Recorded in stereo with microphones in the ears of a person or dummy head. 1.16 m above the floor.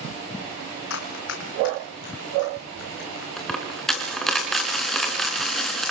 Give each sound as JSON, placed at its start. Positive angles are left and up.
{"t": 0.9, "sound": "running footsteps", "side_deg": 70, "distance_m": 3.0}
{"t": 3.4, "sound": "a dropped coin", "side_deg": 0, "distance_m": 4.0}